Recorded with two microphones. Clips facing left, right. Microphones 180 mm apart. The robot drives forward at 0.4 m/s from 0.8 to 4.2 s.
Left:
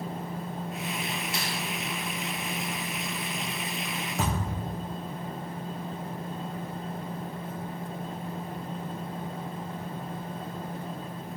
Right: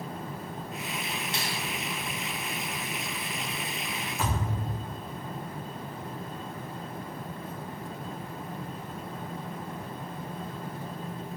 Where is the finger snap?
25° right (ahead or behind), 1.5 m.